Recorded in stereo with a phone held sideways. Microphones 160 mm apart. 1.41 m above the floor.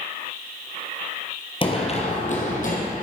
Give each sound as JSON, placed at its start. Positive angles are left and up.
{"t": 1.6, "sound": "running footsteps", "side_deg": 35, "distance_m": 1.7}